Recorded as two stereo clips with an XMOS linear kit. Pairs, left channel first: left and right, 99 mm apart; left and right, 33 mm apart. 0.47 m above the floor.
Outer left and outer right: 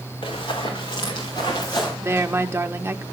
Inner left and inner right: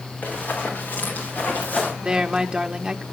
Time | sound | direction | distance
0.2 | running footsteps | 60° left (ahead or behind) | 5 m
2.0 | a woman speaking | 25° right (ahead or behind) | 0.9 m